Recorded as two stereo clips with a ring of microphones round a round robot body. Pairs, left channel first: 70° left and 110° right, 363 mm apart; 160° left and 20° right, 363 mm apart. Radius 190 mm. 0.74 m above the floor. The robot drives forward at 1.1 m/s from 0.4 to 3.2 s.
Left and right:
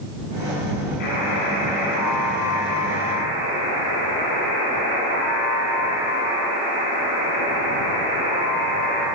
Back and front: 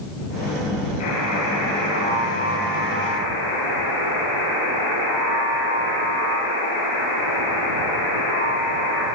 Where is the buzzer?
110° left, 9.5 m; by 9.0 s 120° left, 11 m.